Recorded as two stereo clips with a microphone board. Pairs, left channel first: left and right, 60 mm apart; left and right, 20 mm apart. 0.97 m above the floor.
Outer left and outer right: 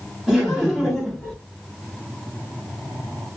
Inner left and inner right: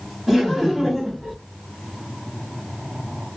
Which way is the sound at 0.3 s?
10° right (ahead or behind).